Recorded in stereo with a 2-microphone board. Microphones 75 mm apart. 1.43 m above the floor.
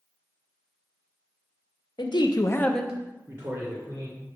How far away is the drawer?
I don't hear a drawer.